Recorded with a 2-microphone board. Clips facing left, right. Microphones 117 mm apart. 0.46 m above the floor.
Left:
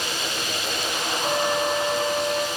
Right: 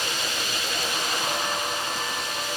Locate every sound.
1.2 s a flute: 70° left (ahead or behind), 4 m